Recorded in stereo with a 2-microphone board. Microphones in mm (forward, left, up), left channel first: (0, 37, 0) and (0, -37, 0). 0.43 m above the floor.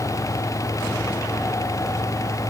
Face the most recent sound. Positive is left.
No sound to turn to.